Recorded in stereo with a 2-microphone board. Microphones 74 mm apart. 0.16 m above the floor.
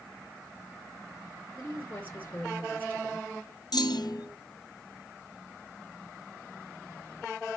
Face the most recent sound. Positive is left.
turn(degrees=80)